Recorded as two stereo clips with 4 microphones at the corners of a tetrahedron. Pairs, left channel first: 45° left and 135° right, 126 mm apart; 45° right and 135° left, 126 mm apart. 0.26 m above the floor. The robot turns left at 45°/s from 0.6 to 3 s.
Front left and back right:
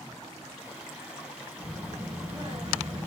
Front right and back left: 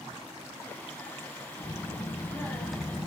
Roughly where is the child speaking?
Right.